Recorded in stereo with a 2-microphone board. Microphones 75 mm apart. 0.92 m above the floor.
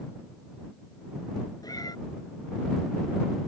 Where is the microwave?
No microwave in this recording.